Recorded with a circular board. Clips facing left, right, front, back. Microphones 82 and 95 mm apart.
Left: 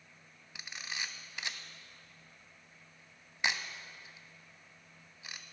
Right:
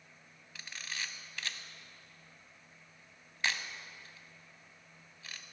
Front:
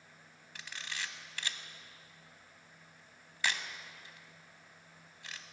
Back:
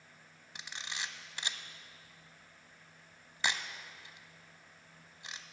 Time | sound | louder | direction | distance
0.6 | a camera shutter | left 1 dB, even | 140° left | 0.5 m